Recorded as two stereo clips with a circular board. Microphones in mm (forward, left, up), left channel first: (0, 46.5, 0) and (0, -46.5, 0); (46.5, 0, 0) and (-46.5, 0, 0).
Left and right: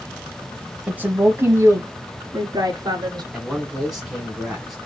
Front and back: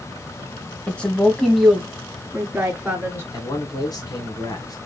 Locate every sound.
0.9 s a woman speaking: 50° right, 1.0 m; by 3.2 s 115° right, 1.7 m
3.3 s a man speaking: 5° right, 2 m